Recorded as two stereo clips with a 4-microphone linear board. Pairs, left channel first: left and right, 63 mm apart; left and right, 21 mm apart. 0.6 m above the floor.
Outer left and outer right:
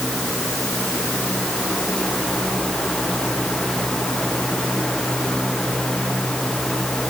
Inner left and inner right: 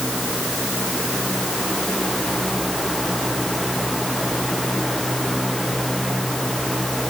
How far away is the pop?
No pop in this recording.